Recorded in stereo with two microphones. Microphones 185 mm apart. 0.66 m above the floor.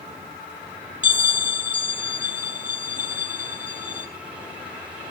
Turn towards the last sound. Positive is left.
turn(degrees=-45)  # may be behind; listen again after turning